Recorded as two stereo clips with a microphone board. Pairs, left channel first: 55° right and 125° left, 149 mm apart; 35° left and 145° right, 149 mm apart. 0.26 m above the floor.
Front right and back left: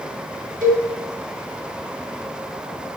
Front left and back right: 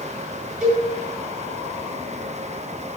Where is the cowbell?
130° left, 3 m.